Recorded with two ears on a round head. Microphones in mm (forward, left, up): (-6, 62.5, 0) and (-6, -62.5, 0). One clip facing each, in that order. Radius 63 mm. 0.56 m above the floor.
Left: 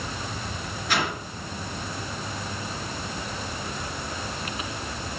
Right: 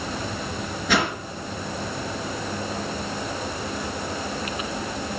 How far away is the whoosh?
About 3 m.